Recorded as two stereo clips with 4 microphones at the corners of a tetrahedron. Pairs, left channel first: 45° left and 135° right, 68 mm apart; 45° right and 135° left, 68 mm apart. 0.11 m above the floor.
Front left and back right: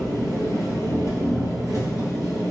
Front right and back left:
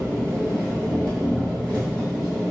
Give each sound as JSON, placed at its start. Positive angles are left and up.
{"t": 0.0, "sound": "an engine running", "azimuth_deg": -130, "distance_m": 2.5}